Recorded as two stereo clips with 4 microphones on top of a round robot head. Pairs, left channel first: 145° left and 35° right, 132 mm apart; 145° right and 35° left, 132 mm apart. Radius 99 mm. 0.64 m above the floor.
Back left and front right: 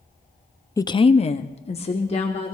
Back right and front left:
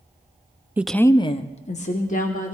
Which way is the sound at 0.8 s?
100° left.